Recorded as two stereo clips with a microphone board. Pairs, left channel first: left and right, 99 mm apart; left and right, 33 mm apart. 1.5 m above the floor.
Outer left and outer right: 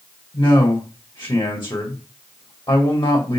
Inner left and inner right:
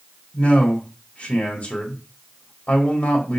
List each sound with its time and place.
0.3 s a man speaking: 45° left (ahead or behind), 2 m